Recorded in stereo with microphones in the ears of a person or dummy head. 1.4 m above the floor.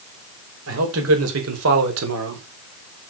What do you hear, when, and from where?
0.7 s a man speaking: 85° right, 5 m; by 2.5 s 80° right, 3 m